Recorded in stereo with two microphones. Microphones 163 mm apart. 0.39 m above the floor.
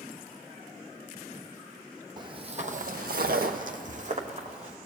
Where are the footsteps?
25° right (ahead or behind), 1.1 m; by 4.8 s 40° right (ahead or behind), 2 m.